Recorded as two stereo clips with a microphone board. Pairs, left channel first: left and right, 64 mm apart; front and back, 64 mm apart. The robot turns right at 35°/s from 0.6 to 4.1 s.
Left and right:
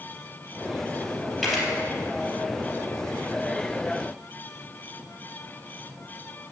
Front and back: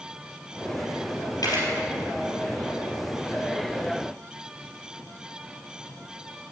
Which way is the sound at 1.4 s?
5° right.